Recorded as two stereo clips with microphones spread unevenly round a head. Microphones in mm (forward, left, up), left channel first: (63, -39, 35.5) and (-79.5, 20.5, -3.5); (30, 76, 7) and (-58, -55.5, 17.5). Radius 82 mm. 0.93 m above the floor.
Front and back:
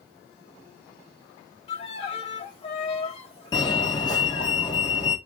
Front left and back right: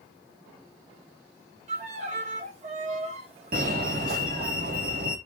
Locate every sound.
1.7 s a violin: 75° right, 3 m
3.5 s a fire alarm: 90° right, 3 m